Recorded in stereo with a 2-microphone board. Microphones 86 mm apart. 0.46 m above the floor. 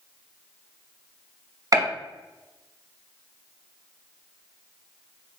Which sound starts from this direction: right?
A gunshot, at 1.7 s.